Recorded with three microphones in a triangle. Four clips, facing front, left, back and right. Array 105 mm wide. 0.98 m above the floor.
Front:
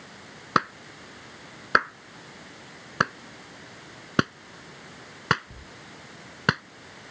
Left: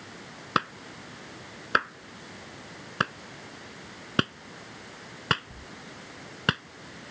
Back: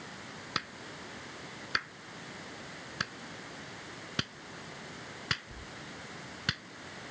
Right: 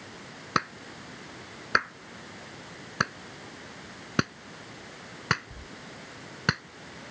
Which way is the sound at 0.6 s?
10° left.